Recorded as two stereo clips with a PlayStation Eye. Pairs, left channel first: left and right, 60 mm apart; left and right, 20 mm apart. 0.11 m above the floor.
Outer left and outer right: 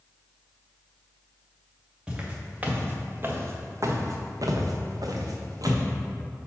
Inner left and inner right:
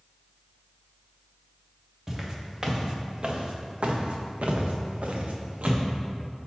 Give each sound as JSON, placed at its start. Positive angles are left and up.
{"t": 2.1, "sound": "footsteps", "side_deg": -15, "distance_m": 1.9}